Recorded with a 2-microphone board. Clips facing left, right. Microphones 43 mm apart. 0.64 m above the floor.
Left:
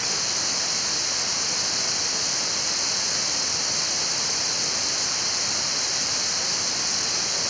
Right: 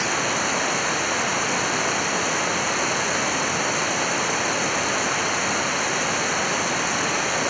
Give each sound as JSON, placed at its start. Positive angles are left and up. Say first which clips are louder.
{"t": 0.0, "sound": "running water", "louder": "right 8 dB", "side_deg": -35}